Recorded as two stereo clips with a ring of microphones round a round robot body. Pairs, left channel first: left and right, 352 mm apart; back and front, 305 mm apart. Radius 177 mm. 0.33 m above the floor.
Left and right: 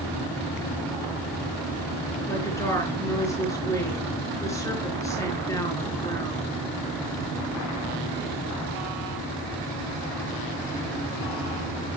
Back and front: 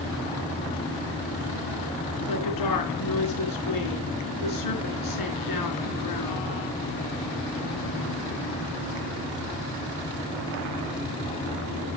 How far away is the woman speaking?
About 4.5 m.